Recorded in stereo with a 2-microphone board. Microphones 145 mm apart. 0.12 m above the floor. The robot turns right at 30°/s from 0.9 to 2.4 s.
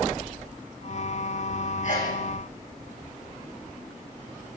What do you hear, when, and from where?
1.8 s a sneeze: 55° left (ahead or behind), 8 m; by 2.2 s 65° left (ahead or behind), 8 m